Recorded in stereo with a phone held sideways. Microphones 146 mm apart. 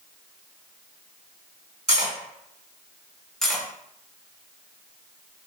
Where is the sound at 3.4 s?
5° left (ahead or behind), 0.6 m.